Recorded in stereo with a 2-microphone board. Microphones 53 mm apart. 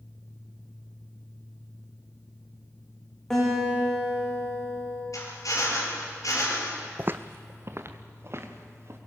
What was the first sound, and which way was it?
A guitar, 10° left (ahead or behind).